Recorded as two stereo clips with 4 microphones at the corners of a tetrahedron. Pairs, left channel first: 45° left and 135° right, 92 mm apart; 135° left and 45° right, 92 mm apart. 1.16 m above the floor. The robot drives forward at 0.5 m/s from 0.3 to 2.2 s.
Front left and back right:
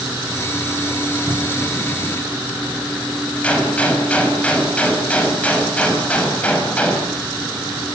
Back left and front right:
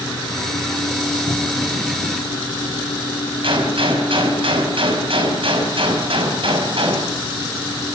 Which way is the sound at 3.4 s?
30° right.